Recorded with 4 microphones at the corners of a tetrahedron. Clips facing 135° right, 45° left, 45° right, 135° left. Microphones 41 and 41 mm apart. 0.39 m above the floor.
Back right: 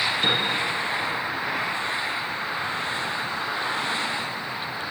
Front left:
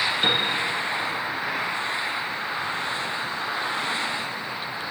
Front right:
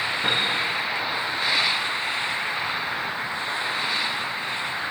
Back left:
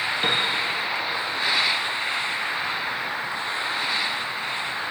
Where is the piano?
110° left, 3.5 m.